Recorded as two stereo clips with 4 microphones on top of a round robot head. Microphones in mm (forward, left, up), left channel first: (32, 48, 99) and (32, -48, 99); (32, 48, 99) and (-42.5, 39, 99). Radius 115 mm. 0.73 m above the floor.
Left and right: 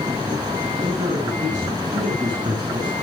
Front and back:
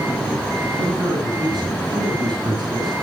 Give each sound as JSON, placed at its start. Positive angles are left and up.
{"t": 0.7, "sound": "a man speaking", "azimuth_deg": -145, "distance_m": 9.5}